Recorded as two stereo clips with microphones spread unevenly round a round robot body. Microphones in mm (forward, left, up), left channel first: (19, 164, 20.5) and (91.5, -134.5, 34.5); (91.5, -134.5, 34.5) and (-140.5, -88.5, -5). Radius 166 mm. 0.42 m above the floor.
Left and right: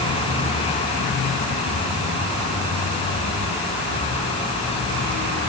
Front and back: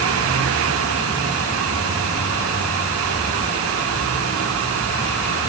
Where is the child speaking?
I don't hear a child speaking.